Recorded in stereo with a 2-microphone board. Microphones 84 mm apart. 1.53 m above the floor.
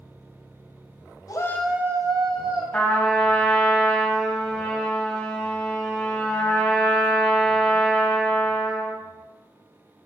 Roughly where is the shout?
Left.